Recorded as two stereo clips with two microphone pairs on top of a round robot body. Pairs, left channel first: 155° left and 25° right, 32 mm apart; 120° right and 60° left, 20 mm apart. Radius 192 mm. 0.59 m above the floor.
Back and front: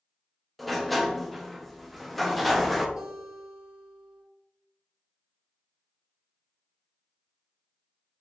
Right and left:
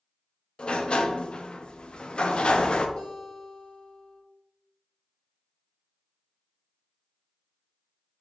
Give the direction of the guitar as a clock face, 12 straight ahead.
3 o'clock.